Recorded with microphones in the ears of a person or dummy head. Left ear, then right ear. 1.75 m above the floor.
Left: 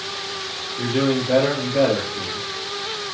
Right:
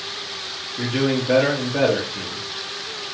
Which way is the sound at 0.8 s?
55° right (ahead or behind).